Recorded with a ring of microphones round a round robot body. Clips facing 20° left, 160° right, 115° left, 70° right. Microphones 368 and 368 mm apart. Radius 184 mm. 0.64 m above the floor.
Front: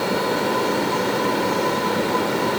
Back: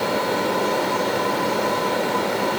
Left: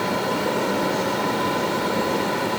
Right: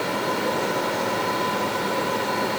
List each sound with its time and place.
Only background noise.